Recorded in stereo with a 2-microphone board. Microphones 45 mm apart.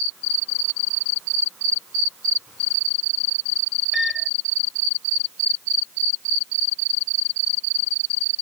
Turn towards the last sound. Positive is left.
turn(degrees=-5)  # may be behind; listen again after turning